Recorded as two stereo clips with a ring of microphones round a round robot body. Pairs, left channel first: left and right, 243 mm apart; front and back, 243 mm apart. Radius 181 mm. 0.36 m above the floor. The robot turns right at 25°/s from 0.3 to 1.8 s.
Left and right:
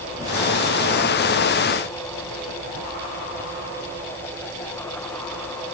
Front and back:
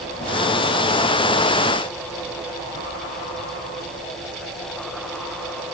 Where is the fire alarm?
No fire alarm in this recording.